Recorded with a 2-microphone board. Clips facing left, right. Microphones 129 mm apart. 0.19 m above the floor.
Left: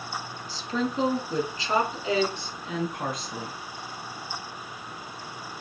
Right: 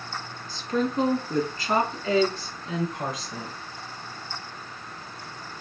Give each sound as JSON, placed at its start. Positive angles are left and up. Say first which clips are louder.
{"t": 0.5, "sound": "a woman speaking", "louder": "right 3 dB", "side_deg": -55, "distance_m": 2.0}